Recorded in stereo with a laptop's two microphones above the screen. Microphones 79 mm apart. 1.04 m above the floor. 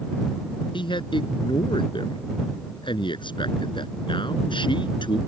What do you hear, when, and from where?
0.7 s a man speaking: 85° left